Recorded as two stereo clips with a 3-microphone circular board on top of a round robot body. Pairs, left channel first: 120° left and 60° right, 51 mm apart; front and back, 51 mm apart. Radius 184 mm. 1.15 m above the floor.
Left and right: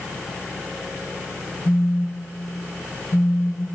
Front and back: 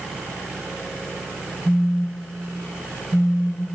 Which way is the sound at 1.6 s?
70° left.